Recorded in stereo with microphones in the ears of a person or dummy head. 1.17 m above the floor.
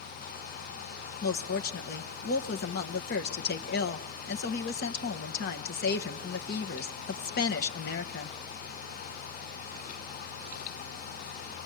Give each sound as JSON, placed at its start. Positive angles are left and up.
{"t": 1.2, "sound": "a woman speaking", "side_deg": 50, "distance_m": 1.1}